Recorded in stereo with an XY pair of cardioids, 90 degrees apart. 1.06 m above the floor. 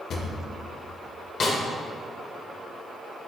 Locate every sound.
0.1 s a drawer: 70° left, 1.6 m
1.4 s a snare drum: 55° left, 2.5 m